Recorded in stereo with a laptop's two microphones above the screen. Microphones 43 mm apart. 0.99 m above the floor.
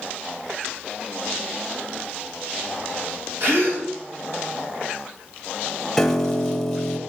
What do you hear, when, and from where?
3.4 s a gasp: 60° right (ahead or behind), 3.5 m
6.0 s a piano: 5° left (ahead or behind), 0.9 m